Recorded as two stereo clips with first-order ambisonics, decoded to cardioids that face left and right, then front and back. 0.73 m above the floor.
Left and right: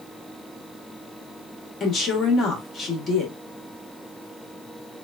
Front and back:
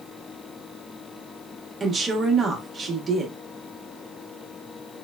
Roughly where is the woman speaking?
Behind left.